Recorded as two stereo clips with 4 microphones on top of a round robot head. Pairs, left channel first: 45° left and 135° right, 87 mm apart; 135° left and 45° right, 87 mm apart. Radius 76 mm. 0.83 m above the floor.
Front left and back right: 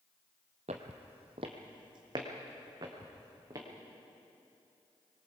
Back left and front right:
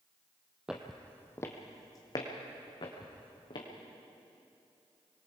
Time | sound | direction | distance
0.7 | footsteps | 130° right | 1.2 m